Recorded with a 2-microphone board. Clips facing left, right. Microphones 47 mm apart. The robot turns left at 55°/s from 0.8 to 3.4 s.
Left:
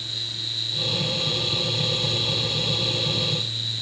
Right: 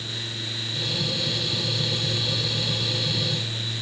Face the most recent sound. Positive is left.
No sound to turn to.